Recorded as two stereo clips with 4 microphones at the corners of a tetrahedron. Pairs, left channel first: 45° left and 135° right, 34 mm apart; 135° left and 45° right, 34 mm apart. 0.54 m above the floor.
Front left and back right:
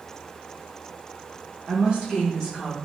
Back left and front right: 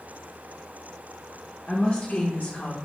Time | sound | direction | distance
1.7 | a woman speaking | 170° right | 0.9 m